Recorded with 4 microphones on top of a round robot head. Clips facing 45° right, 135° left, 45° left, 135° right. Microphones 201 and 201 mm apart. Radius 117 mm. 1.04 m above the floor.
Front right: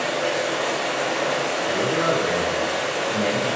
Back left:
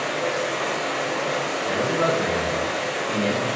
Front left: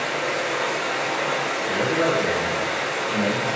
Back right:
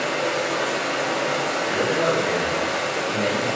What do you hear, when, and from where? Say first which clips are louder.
0.0 s running water: front right 1 dB, back right 2 dB; 105° right, 0.9 m
1.7 s a man speaking: even, front left 1 dB; 130° left, 0.9 m